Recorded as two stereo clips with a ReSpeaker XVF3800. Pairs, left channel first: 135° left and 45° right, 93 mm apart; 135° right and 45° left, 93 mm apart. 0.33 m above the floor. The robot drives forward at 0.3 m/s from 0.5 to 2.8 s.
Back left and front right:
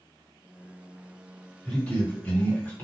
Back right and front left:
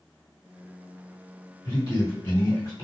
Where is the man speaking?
155° right, 1.4 m; by 2.9 s 165° right, 1.7 m.